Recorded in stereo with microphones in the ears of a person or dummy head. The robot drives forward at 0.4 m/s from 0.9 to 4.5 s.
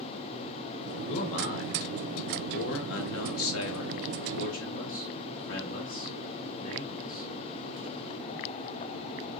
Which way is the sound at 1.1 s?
40° left (ahead or behind).